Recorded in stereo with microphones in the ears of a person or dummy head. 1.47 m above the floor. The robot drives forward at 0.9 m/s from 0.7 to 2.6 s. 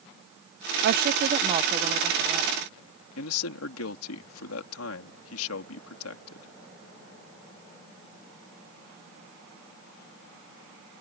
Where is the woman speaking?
50° right (ahead or behind); by 2.7 s 10° right (ahead or behind).